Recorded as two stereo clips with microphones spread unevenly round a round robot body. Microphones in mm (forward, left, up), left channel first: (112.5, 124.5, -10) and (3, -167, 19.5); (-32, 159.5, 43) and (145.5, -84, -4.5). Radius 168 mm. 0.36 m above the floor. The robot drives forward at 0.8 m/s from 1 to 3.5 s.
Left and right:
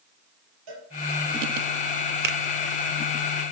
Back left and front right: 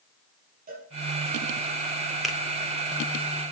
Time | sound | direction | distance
0.7 | a cowbell | 120° right | 5 m
2.2 | a finger snap | 125° right | 0.9 m